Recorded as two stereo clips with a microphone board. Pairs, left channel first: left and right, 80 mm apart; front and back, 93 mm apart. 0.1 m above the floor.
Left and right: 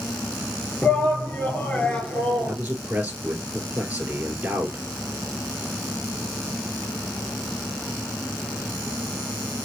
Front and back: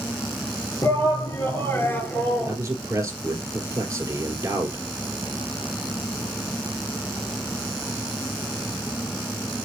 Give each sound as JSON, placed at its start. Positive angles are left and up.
{"t": 0.8, "sound": "a shout", "azimuth_deg": 25, "distance_m": 2.5}
{"t": 2.5, "sound": "a man speaking", "azimuth_deg": -150, "distance_m": 2.5}